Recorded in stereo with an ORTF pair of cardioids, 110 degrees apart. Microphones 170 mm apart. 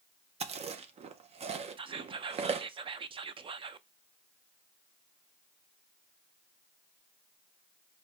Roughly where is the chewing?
Ahead right.